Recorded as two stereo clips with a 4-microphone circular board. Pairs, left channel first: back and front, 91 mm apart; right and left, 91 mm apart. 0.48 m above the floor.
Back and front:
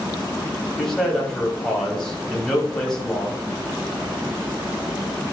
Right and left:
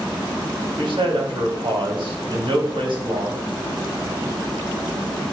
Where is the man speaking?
100° left, 2.5 m.